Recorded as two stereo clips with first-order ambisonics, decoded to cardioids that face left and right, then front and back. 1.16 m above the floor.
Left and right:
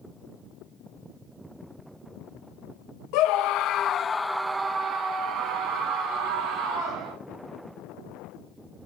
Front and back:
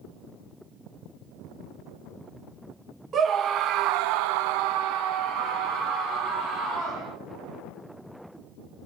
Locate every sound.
3.1 s a scream: 115° left, 1.1 m; by 7.1 s 120° right, 2.5 m